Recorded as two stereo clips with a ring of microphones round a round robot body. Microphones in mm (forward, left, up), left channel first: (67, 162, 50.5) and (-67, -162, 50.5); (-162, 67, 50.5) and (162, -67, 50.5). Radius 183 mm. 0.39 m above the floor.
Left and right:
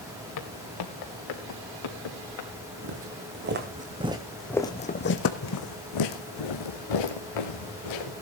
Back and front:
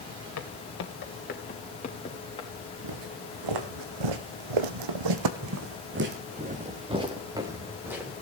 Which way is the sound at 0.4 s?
110° left.